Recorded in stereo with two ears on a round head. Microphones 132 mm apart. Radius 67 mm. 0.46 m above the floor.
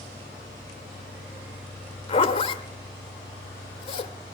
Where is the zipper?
40° left (ahead or behind), 1.3 m.